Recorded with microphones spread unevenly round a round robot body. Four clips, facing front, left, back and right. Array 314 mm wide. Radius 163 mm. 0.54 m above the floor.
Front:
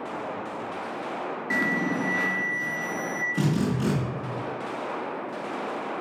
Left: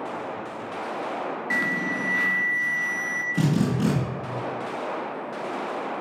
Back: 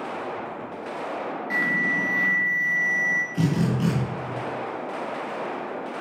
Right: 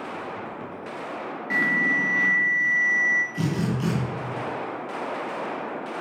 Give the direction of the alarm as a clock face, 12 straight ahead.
1 o'clock.